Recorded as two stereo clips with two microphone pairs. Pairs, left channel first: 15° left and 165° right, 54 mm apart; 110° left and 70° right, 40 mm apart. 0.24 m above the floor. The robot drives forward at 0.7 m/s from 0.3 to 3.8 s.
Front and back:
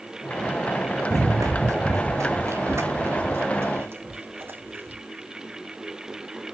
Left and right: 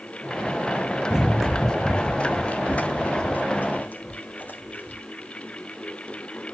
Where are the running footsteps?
145° right, 1.1 m; by 5.0 s 145° left, 5 m.